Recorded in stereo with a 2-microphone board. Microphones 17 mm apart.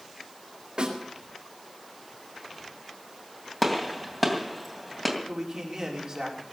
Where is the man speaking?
35° right (ahead or behind), 4.5 m.